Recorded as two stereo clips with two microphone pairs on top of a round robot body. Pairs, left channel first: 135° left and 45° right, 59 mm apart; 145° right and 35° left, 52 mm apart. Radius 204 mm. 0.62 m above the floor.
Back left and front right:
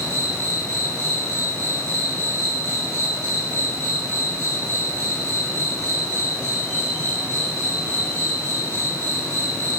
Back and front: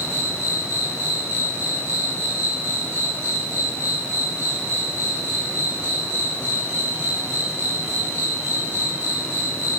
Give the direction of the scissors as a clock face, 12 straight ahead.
No scissors in this recording.